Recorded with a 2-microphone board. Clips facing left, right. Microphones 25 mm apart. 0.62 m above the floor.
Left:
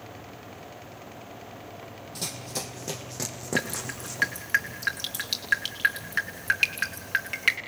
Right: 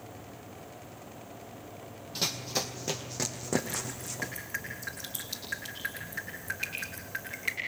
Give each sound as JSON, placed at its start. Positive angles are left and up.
{"t": 2.1, "sound": "running footsteps", "side_deg": -35, "distance_m": 1.6}
{"t": 3.6, "sound": "dripping", "side_deg": 85, "distance_m": 3.0}